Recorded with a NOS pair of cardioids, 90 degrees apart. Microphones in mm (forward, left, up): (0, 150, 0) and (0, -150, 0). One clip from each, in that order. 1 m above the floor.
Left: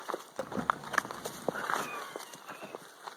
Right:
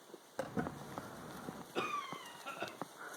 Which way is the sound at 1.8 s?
60° right.